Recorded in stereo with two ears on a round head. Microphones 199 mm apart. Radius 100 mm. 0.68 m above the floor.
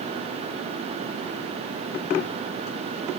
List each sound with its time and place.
Only background noise.